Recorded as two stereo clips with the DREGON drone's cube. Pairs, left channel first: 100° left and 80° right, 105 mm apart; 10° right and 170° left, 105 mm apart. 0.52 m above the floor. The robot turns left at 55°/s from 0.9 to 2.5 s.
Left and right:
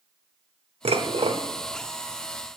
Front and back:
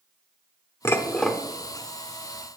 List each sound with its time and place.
0.8 s dishes clattering: 75° right, 0.8 m; by 1.4 s 105° right, 0.8 m